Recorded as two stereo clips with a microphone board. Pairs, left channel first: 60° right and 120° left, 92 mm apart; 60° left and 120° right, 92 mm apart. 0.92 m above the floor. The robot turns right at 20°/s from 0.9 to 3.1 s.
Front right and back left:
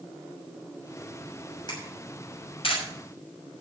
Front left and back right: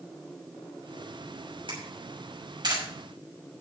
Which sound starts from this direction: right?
A camera shutter, at 1.7 s.